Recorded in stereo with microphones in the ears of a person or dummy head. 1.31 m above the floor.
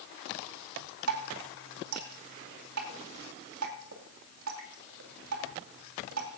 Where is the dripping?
80° right, 2.5 m.